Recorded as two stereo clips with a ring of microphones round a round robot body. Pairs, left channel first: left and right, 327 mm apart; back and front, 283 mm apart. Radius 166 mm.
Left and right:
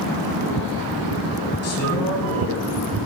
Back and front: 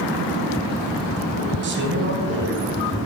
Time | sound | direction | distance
1.6 | a man speaking | 45° left | 4 m